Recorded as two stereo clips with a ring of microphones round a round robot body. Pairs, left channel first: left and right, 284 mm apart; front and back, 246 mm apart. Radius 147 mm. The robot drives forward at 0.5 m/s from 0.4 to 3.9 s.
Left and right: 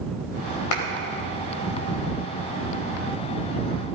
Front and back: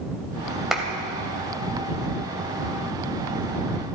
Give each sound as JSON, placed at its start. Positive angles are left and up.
{"t": 0.7, "sound": "a clap", "azimuth_deg": 90, "distance_m": 2.5}